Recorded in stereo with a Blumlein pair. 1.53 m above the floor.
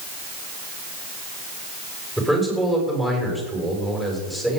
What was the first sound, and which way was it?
A man speaking, 5° left.